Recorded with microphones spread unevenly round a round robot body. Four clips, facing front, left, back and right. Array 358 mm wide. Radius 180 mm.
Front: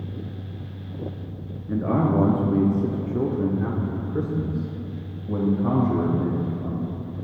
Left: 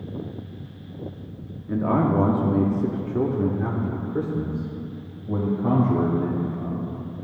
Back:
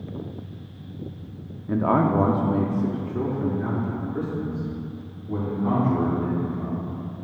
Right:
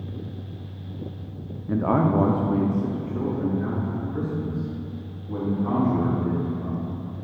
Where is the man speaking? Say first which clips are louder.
Even, back 2 dB; 165° right, 0.6 m; by 6.9 s 60° left, 2.5 m.